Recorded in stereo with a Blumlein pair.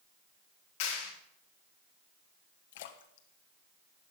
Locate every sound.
0.8 s a clap: 50° left, 3.5 m
2.7 s a splash: 55° left, 1.2 m